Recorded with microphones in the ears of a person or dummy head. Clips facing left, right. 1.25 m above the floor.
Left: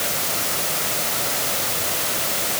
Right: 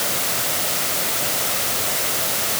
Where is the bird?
I don't hear a bird.